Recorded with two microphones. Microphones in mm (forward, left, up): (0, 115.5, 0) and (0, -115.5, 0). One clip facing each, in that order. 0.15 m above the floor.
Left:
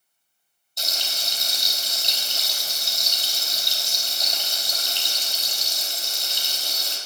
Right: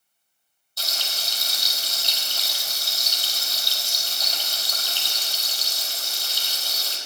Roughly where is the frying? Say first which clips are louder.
Left 1 dB; centre.